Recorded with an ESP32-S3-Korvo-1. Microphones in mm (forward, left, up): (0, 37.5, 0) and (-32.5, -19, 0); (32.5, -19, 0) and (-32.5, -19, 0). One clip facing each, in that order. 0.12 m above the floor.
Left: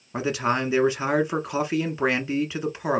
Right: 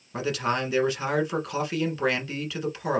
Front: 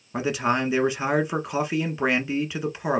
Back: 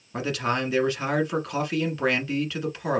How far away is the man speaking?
About 1.1 m.